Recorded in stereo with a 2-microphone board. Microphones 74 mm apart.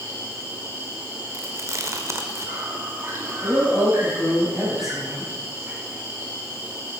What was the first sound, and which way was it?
An insect, 40° right (ahead or behind).